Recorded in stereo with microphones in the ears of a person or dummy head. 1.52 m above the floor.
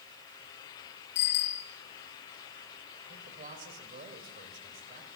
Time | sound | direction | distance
1.1 | a bicycle bell | 55° left (ahead or behind) | 4 m
3.1 | a man speaking | 45° right (ahead or behind) | 5.5 m